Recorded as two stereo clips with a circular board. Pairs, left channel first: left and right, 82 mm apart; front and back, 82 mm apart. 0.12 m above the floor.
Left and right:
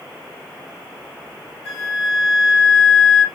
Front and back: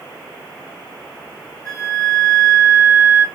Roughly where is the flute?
Ahead.